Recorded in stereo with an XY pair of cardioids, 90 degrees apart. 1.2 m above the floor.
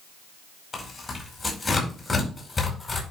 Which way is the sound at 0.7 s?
35° left.